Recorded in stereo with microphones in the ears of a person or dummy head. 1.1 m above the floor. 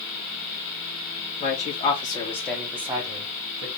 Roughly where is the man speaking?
Left.